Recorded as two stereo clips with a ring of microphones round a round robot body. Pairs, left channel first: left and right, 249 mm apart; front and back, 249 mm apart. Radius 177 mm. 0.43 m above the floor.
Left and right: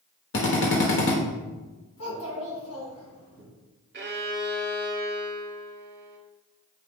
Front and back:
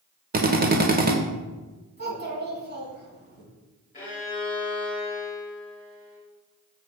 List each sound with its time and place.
0.3 s a drill: 130° left, 1.1 m
2.0 s a child speaking: 135° left, 3 m
3.9 s a violin: 60° right, 1.5 m